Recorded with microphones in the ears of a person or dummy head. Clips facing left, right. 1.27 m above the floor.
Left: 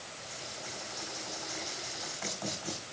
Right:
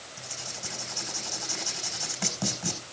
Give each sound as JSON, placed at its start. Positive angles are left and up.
{"t": 0.2, "sound": "writing", "side_deg": -50, "distance_m": 5.0}